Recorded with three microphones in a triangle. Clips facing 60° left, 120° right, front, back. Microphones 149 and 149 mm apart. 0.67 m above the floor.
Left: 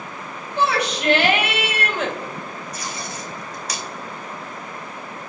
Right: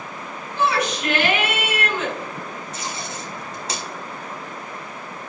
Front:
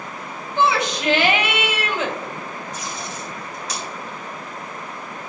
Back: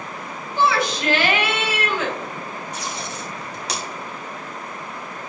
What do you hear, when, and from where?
0.6 s a shout: 70° left, 3 m
2.7 s tape being pulled: straight behind, 2.0 m